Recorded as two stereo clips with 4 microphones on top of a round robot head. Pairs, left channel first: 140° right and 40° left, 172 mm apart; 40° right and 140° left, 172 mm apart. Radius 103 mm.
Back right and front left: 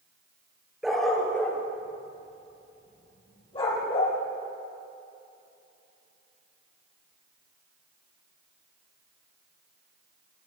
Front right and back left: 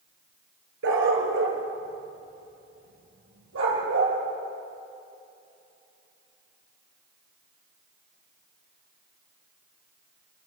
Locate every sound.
0.8 s a dog barking: 125° left, 3 m; by 4.2 s 160° left, 6 m